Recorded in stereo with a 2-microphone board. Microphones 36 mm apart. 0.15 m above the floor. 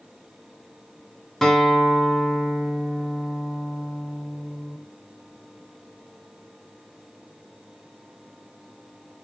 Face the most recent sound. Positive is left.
turn(degrees=10)  # may be behind; listen again after turning